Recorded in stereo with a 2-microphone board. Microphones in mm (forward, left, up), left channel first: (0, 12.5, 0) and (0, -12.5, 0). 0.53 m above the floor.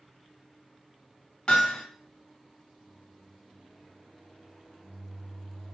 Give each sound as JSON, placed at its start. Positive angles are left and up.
{"t": 1.5, "sound": "hammering", "side_deg": 40, "distance_m": 1.0}
{"t": 2.8, "sound": "a microwave", "side_deg": 60, "distance_m": 1.3}